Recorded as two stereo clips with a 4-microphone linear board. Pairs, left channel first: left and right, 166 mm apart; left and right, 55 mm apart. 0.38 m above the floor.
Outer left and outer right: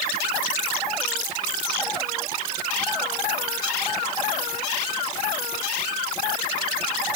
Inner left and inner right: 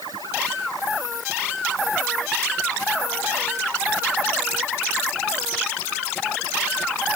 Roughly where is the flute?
No flute in this recording.